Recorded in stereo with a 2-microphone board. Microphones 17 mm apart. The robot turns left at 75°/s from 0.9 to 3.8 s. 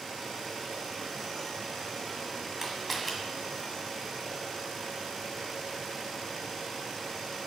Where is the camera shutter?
20° right (ahead or behind), 1.8 m; by 3.1 s 5° left (ahead or behind), 1.8 m.